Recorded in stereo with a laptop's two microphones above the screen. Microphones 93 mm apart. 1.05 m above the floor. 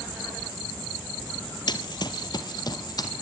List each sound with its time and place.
1.7 s running footsteps: 50° left (ahead or behind), 1.6 m; by 3.1 s 45° left (ahead or behind), 3 m